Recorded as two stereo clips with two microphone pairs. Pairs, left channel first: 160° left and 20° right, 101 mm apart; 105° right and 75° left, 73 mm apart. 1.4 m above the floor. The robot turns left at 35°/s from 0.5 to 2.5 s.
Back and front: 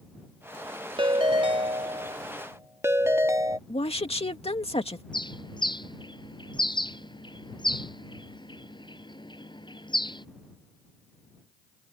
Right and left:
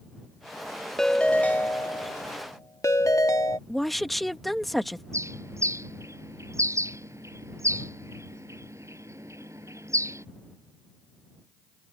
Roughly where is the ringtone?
Ahead right.